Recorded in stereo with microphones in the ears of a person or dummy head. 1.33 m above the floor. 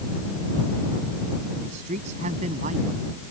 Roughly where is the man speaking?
Right.